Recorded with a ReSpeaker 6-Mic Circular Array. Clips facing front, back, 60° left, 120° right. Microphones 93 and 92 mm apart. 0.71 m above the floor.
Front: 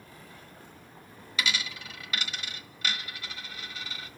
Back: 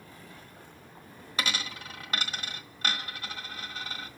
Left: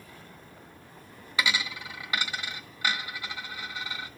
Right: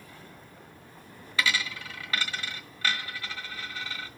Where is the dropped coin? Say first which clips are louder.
Even, even; 135° left, 1.3 m.